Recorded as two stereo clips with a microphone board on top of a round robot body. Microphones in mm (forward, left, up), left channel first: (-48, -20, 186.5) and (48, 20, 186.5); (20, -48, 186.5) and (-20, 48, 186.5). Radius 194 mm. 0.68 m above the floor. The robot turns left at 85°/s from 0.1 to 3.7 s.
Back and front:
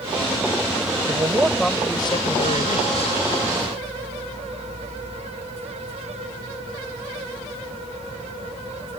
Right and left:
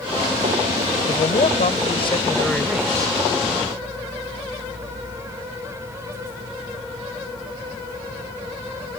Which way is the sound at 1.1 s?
25° right.